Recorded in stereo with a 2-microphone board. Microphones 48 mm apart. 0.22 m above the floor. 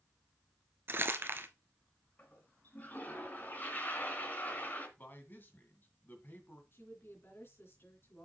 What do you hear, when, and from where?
0.9 s crumpling: 50° right (ahead or behind), 0.8 m
2.2 s a toilet flushing: 35° left (ahead or behind), 2.5 m
5.0 s a man speaking: 40° left (ahead or behind), 1.9 m
6.7 s a woman speaking: 50° left (ahead or behind), 3 m